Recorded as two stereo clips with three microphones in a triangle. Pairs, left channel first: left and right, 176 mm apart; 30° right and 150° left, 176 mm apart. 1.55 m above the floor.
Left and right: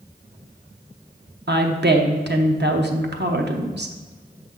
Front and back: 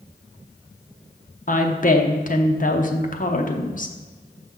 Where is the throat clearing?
No throat clearing in this recording.